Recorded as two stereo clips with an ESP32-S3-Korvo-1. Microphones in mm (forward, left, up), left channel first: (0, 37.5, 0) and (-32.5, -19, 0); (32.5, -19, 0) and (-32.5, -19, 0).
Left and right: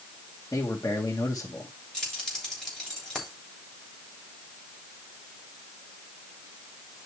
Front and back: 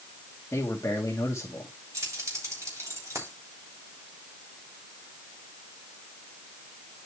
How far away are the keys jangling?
About 3 m.